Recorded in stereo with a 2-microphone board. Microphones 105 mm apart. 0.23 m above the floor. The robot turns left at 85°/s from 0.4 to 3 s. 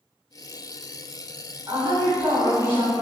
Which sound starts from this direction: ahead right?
A woman speaking, at 1.7 s.